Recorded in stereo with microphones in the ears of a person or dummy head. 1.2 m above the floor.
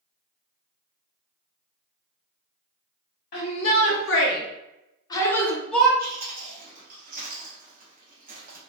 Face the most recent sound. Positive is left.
turn(degrees=-55)  # may be behind; listen again after turning